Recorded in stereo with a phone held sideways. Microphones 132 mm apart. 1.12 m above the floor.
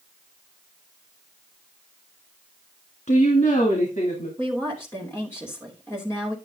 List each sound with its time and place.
3.1 s a woman speaking: 65° left (ahead or behind), 2 m; by 4.3 s 80° left, 3 m
4.4 s a woman speaking: 20° left (ahead or behind), 3 m